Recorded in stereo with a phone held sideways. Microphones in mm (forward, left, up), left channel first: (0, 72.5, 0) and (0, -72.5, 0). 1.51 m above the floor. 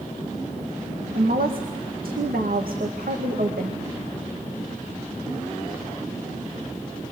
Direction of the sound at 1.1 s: 85° right.